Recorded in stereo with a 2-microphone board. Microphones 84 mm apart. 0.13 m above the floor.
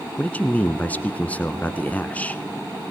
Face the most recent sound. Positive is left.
turn(degrees=20)  # may be behind; listen again after turning